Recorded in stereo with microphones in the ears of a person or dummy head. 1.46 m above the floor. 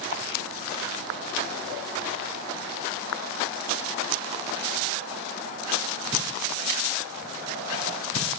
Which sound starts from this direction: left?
A camera shutter, at 0.1 s.